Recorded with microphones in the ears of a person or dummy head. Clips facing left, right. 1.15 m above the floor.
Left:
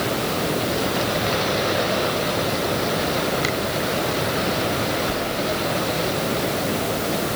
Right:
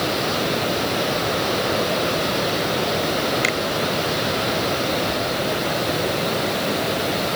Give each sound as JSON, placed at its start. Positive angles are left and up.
{"t": 3.4, "sound": "a finger snap", "side_deg": -30}